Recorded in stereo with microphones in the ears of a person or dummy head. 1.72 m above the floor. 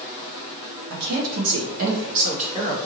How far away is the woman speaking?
About 1.0 m.